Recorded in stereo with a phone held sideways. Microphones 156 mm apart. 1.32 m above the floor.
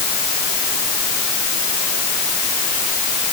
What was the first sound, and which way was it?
Only background noise.